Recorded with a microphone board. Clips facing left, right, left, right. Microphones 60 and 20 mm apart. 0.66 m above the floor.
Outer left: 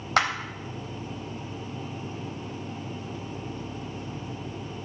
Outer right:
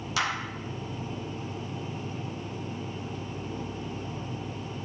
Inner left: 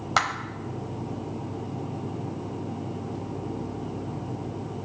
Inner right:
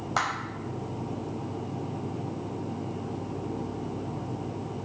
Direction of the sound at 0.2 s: 50° left (ahead or behind).